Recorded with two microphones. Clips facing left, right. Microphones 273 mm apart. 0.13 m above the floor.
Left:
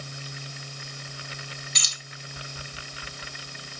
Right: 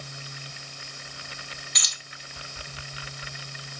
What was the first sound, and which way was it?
Keys jangling, 30° left (ahead or behind).